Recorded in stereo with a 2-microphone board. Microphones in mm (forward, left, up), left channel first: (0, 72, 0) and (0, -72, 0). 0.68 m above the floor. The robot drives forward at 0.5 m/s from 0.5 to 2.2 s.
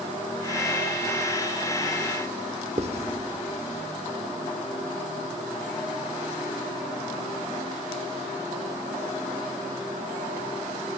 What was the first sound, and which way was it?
Writing, 45° right (ahead or behind).